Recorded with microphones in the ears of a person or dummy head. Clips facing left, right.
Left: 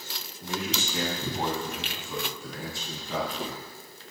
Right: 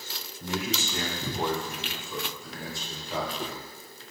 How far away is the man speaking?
About 3 m.